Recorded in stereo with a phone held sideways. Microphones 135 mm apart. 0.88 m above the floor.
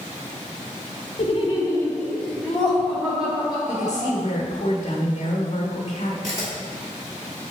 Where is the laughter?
50° left (ahead or behind), 1.1 m; by 4.1 s 10° right (ahead or behind), 4 m.